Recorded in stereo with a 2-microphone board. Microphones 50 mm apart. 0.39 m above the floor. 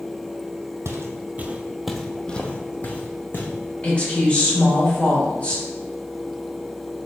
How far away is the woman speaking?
About 1.6 m.